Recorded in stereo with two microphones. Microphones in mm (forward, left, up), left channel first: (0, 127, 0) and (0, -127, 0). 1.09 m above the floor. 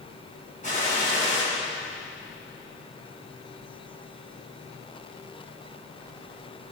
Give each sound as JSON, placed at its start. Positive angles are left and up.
{"t": 0.6, "sound": "a gunshot", "side_deg": 30, "distance_m": 7.0}